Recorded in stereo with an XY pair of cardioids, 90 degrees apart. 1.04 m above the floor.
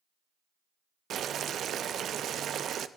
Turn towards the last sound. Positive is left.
turn(degrees=-70)